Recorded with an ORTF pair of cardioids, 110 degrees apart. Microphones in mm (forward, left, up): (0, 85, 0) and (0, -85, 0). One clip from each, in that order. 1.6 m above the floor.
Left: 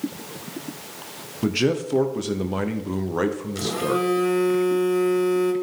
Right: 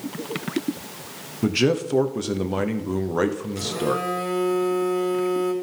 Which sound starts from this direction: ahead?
A man speaking, at 1.4 s.